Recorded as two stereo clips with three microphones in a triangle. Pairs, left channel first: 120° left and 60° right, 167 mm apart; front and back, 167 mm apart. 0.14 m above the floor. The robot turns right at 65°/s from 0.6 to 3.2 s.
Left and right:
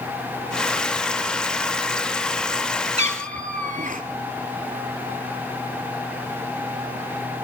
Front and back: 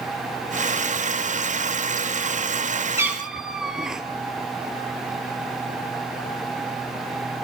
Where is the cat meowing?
110° right, 0.8 m; by 4.0 s 95° right, 0.8 m.